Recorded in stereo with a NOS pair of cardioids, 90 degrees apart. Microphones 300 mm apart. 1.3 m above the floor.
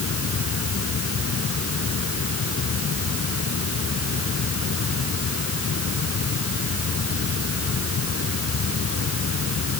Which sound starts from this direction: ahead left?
A fan, at 0.0 s.